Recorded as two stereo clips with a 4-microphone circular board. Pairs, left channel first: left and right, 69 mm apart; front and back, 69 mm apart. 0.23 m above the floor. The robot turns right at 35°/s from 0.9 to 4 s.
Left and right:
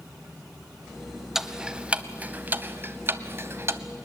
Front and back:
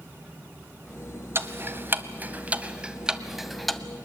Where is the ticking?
170° right, 0.8 m; by 3.8 s 85° right, 0.8 m.